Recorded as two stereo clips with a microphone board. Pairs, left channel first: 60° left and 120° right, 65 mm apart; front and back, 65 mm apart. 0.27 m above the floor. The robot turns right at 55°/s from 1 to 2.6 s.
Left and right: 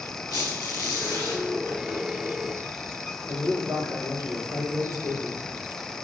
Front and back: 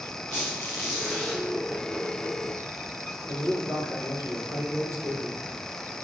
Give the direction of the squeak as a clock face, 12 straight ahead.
10 o'clock.